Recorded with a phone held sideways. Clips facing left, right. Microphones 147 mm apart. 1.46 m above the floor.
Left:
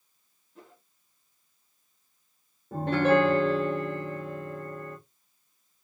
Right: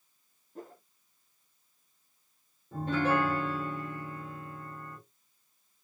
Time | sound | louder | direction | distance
0.6 | a whoosh | right 7 dB | 45° right (ahead or behind) | 1.1 m
2.7 | a piano | left 6 dB | 75° left (ahead or behind) | 1.8 m